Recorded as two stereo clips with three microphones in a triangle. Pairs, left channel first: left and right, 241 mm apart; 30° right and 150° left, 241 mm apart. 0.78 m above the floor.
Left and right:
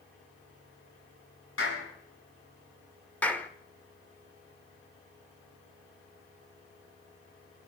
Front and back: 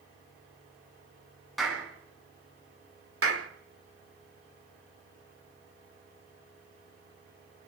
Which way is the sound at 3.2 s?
175° left.